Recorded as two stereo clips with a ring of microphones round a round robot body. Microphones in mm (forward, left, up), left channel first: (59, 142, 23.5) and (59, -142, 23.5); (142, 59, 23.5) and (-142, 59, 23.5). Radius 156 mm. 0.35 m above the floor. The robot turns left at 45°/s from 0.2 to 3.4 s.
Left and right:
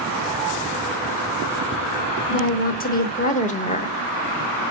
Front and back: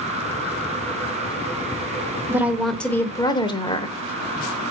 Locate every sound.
2.3 s a woman speaking: 105° left, 1.0 m; by 4.0 s 55° left, 1.0 m